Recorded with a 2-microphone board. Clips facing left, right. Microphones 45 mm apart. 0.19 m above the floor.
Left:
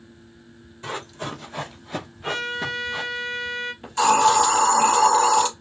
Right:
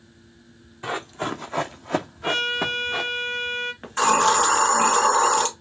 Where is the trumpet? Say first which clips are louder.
Right 1 dB; 55° right (ahead or behind), 0.7 m.